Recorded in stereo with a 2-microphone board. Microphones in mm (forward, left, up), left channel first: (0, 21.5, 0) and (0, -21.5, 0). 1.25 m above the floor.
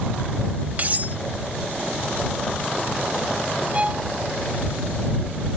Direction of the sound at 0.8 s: 40° right (ahead or behind).